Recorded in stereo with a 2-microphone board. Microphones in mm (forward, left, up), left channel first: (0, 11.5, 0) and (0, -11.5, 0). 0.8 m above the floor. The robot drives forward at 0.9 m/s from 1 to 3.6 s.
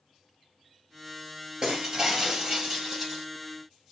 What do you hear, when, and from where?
1.6 s breaking glass: 30° right (ahead or behind), 3.5 m; by 3.2 s 20° right (ahead or behind), 4.5 m